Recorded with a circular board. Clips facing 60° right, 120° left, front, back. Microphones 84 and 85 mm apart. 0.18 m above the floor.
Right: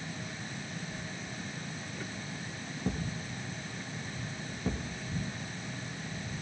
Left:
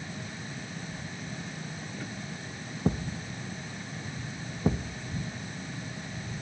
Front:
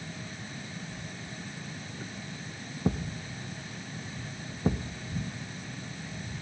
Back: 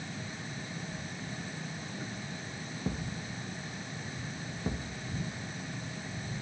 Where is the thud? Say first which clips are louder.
Left 6 dB, front 6 dB; 60° left, 2 m.